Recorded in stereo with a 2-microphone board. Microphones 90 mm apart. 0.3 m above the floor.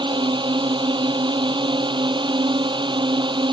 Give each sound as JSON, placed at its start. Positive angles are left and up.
{"t": 0.0, "sound": "a drone", "side_deg": -65}